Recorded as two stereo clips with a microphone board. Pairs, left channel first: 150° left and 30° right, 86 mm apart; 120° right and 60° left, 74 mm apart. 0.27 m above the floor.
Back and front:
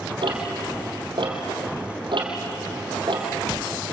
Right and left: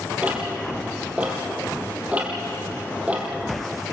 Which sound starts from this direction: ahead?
Ticking, at 0.2 s.